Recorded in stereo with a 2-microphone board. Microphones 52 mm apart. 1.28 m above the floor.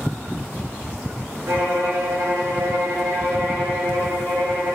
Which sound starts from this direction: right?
A violin, at 1.5 s.